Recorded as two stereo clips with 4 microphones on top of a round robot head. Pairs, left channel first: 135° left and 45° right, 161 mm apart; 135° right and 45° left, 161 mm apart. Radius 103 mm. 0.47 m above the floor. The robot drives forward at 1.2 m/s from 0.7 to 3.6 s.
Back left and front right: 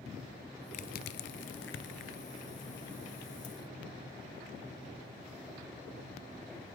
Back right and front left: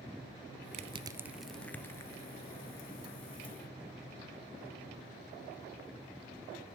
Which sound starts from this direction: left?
Crushing, at 0.7 s.